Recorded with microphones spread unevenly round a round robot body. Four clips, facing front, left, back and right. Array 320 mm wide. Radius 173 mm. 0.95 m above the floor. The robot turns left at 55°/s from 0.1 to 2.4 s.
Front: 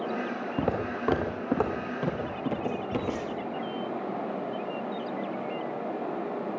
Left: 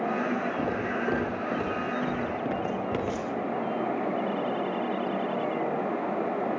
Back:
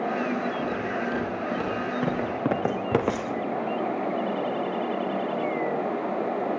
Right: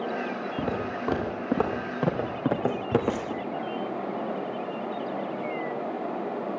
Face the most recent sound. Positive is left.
turn(degrees=-145)